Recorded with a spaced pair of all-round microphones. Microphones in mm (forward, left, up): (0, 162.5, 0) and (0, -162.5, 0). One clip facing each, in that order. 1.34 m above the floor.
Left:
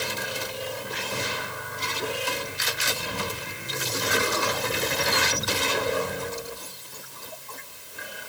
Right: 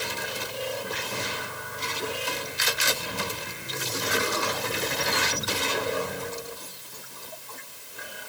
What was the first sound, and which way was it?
Only background noise.